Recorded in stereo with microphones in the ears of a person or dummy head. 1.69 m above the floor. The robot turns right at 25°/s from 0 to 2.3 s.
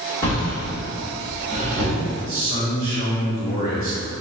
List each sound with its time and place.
0.2 s a drawer: 15° left (ahead or behind), 1.1 m; by 1.9 s 10° right (ahead or behind), 1.1 m
2.2 s a man speaking: 35° left (ahead or behind), 1.0 m; by 4.1 s 30° left (ahead or behind), 1.0 m